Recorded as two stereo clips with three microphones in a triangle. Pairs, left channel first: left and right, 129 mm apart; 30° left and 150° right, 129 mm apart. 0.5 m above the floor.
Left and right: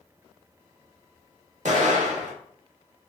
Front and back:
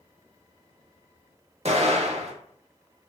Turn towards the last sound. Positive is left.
turn(degrees=-115)